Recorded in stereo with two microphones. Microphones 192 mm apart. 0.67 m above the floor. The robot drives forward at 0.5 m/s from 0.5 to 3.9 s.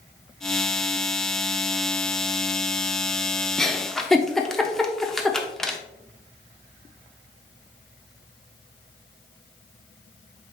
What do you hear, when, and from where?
3.6 s a giggle: 5° left (ahead or behind), 0.8 m